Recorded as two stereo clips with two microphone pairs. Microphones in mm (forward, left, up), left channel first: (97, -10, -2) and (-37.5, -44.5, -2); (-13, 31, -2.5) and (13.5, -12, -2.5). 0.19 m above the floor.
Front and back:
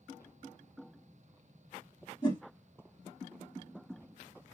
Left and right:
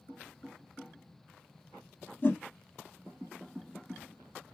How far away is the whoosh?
About 0.9 m.